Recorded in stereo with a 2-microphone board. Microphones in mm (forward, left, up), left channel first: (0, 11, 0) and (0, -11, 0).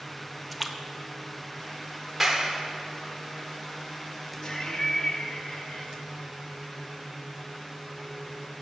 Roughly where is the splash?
Centre.